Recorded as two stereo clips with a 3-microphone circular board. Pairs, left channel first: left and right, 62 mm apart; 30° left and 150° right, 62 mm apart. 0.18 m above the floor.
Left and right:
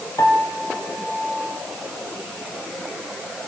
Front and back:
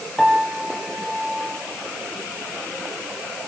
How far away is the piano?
About 4 m.